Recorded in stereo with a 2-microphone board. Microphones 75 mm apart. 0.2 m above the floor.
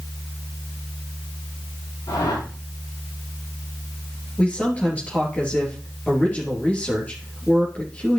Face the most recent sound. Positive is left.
turn(degrees=20)  # may be behind; listen again after turning